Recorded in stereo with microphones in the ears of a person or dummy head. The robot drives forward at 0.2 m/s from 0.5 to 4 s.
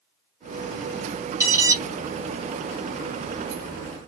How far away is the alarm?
About 0.8 m.